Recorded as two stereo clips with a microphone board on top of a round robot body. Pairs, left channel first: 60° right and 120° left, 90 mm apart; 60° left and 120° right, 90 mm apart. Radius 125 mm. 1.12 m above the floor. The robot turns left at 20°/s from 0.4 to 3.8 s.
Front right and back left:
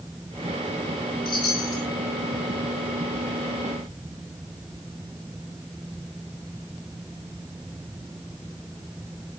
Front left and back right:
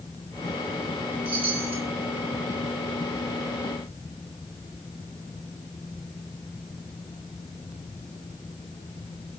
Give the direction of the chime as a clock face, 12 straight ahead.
3 o'clock.